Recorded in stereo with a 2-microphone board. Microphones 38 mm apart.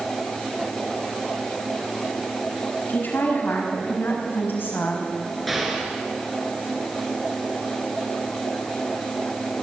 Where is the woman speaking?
60° left (ahead or behind), 6.5 m; by 5.1 s 70° left (ahead or behind), 5.5 m.